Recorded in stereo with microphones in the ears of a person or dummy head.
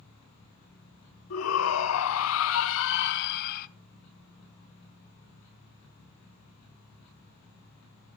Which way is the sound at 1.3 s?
70° left (ahead or behind).